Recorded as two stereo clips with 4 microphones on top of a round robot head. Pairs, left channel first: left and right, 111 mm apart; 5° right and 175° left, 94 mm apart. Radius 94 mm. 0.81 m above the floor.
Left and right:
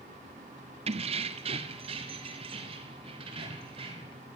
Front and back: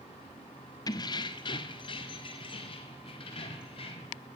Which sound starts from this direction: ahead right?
Keys jangling, at 0.9 s.